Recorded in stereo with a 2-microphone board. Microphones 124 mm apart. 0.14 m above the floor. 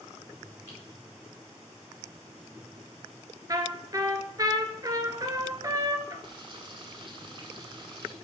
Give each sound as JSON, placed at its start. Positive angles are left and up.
{"t": 0.7, "sound": "typing on a keyboard", "side_deg": -20, "distance_m": 3.0}
{"t": 3.5, "sound": "a trumpet", "side_deg": -30, "distance_m": 0.6}
{"t": 6.2, "sound": "frying", "side_deg": -40, "distance_m": 0.8}